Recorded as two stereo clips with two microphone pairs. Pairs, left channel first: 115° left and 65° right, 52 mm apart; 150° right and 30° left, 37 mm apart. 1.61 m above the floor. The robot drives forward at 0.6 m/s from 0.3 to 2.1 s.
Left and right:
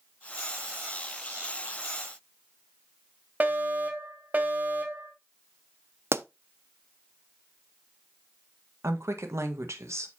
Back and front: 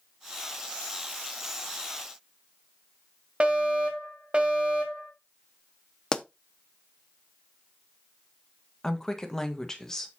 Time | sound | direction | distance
3.4 | a fire alarm | 20° right | 1.7 m
6.1 | a pop | 80° right | 0.5 m
8.8 | a woman speaking | 75° right | 1.5 m